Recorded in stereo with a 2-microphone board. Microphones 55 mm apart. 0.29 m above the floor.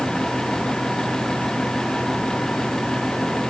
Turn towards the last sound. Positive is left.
No sound to turn to.